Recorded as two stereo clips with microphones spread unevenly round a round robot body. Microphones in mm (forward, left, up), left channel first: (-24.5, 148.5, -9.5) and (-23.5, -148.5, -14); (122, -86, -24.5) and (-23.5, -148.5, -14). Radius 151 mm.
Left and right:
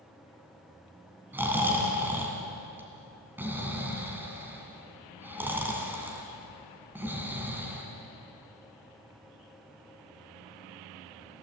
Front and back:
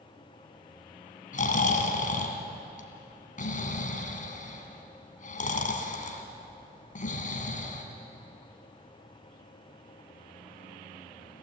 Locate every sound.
1.3 s snoring: 5° right, 2.5 m